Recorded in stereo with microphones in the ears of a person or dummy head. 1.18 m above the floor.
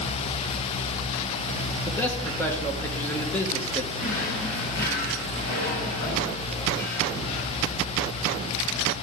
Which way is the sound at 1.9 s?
10° left (ahead or behind).